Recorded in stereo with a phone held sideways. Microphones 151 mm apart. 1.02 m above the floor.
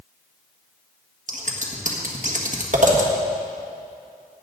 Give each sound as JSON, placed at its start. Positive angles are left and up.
{"t": 1.3, "sound": "scissors", "side_deg": -55, "distance_m": 1.6}